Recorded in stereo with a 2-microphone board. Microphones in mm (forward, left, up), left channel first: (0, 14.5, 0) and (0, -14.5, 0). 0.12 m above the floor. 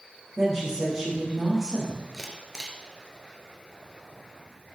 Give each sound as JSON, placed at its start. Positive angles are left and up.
{"t": 0.4, "sound": "a woman speaking", "side_deg": -10, "distance_m": 6.0}
{"t": 2.1, "sound": "a camera shutter", "side_deg": -15, "distance_m": 2.0}